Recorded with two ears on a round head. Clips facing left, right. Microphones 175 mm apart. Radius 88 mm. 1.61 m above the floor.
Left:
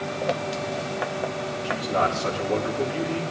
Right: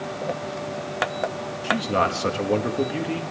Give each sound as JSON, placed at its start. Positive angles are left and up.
{"t": 1.6, "sound": "a man speaking", "side_deg": -60, "distance_m": 1.9}